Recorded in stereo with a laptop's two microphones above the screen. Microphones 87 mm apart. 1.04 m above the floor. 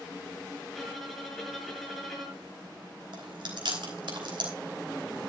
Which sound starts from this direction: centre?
A violin, at 0.7 s.